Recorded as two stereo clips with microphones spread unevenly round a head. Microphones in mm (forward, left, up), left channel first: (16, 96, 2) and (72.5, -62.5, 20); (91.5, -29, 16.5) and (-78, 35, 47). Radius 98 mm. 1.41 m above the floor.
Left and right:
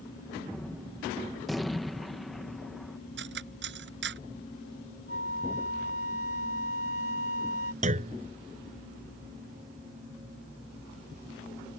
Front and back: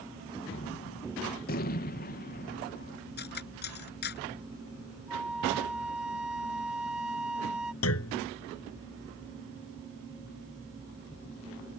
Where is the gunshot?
20° left.